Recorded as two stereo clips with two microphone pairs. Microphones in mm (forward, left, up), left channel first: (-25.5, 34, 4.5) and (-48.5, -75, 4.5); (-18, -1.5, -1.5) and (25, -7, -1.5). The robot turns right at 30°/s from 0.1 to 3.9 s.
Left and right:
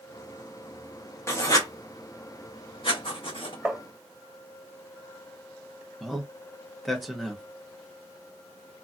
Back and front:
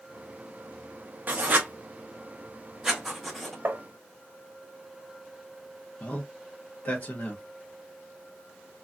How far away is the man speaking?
About 0.7 m.